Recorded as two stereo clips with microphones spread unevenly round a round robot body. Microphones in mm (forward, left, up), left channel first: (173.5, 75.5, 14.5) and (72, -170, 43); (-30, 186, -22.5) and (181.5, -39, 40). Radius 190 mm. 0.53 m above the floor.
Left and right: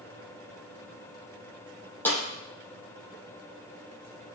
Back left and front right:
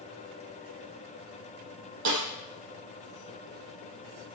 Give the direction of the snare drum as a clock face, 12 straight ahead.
1 o'clock.